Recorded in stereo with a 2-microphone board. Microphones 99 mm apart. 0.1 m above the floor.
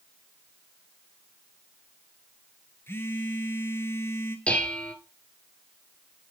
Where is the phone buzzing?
25° left (ahead or behind), 1.2 m.